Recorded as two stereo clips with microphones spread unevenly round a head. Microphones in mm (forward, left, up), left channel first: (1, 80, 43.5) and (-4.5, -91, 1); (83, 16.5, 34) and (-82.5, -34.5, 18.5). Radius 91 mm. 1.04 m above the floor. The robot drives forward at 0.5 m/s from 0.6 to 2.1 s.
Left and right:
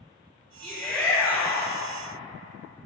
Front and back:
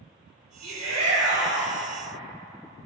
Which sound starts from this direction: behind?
A shout, at 0.6 s.